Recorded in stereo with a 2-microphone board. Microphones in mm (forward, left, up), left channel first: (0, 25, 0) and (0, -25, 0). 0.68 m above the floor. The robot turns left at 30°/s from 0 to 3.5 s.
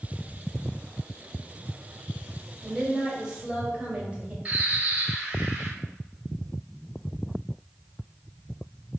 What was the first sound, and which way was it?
A woman speaking, 5° right (ahead or behind).